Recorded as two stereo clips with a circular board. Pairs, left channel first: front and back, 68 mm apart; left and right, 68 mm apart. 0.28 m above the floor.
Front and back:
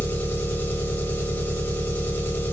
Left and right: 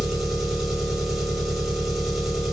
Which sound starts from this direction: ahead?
An engine running, at 0.0 s.